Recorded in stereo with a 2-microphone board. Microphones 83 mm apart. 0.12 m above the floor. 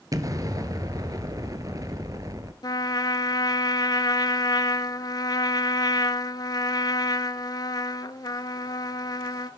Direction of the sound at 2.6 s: 50° left (ahead or behind).